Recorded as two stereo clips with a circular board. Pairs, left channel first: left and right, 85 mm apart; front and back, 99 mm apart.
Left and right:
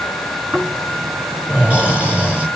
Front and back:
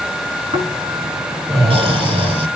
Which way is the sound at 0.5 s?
165° right.